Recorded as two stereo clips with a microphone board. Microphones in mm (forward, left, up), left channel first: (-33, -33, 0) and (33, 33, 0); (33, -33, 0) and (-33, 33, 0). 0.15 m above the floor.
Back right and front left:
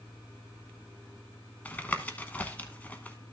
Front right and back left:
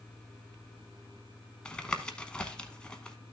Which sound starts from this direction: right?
Tapping, at 1.6 s.